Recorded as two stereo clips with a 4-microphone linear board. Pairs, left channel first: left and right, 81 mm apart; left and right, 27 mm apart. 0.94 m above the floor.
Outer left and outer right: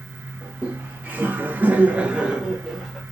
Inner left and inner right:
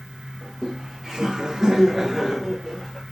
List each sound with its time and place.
0.4 s laughter: 15° right (ahead or behind), 0.9 m; by 3.0 s 5° right (ahead or behind), 1.1 m